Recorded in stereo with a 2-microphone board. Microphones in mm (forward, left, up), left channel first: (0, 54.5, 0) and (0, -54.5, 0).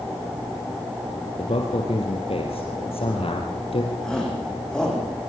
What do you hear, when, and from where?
1.4 s a man speaking: 65° left (ahead or behind), 3 m
4.0 s a shout: 5° left (ahead or behind), 8.5 m